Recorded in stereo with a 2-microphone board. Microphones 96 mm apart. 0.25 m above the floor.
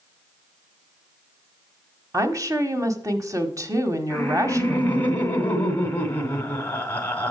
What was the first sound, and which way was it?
A woman speaking, 35° right (ahead or behind).